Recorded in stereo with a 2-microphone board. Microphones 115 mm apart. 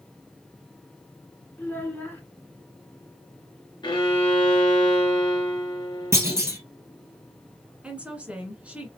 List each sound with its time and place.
1.6 s a child speaking: 20° left (ahead or behind), 1.3 m
3.8 s a violin: 40° left (ahead or behind), 1.4 m
6.1 s a clunk: 25° right (ahead or behind), 1.8 m
7.8 s a woman speaking: 10° right (ahead or behind), 1.6 m